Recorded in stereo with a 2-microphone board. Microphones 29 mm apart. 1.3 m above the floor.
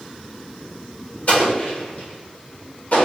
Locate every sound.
1.3 s an explosion: 50° left (ahead or behind), 1.4 m